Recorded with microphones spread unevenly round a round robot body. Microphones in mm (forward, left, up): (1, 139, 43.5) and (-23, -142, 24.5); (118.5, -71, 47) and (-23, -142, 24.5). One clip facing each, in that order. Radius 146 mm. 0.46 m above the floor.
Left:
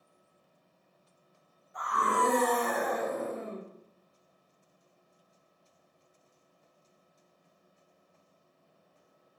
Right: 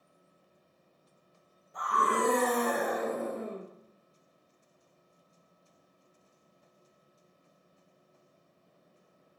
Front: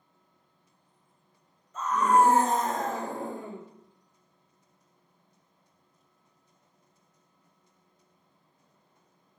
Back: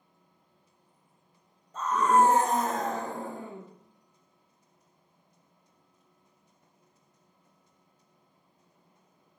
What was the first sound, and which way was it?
A scream, 120° right.